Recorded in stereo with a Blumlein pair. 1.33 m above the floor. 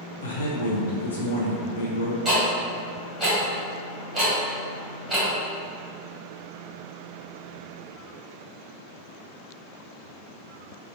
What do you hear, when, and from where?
0.2 s a man speaking: 65° left, 0.7 m
2.2 s ticking: 15° right, 1.5 m